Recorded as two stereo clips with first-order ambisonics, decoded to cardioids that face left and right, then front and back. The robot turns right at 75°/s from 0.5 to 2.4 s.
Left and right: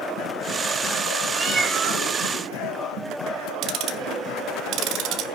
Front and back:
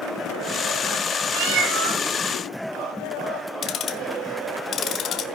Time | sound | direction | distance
1.3 | a cat meowing | straight behind | 3.5 m
3.6 | ticking | 55° right | 1.3 m